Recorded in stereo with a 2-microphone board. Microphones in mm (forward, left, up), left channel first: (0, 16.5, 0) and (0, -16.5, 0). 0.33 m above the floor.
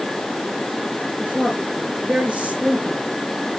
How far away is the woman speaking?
About 4.5 m.